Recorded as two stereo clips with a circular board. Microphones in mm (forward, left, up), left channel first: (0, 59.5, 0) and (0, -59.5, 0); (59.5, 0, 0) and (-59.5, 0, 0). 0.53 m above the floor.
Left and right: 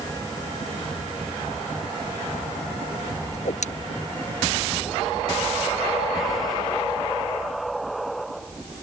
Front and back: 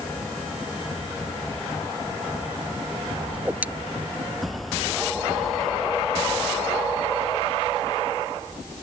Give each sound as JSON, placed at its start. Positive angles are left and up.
{"t": 3.3, "sound": "a whoosh", "azimuth_deg": 100}